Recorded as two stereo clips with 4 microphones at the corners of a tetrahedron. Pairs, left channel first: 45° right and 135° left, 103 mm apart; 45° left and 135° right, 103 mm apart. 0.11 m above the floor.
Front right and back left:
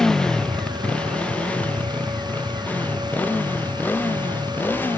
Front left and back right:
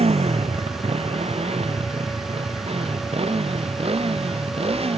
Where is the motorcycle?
130° right; by 5.0 s 115° right.